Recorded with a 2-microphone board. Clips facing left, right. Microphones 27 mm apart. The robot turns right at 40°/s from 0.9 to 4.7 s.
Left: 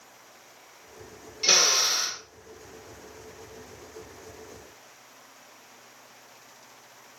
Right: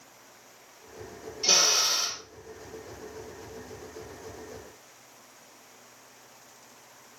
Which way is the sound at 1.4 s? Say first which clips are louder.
Left 2 dB; 120° left.